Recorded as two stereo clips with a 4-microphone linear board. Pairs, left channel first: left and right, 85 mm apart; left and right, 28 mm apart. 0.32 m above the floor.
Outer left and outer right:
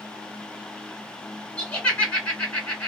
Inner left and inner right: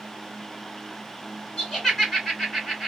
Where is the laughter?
20° left (ahead or behind), 2.0 m.